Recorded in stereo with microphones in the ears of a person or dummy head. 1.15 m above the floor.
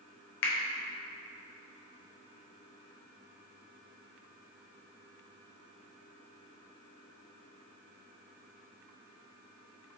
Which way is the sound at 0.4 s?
70° left (ahead or behind).